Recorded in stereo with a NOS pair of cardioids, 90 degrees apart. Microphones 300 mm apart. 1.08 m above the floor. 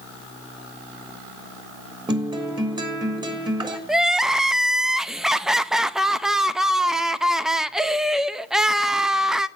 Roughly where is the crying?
Ahead.